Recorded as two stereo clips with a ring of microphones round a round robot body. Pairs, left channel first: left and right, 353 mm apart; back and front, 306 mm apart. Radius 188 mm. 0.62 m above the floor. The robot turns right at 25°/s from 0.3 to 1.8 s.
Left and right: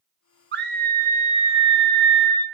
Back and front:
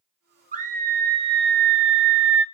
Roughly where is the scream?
Ahead right.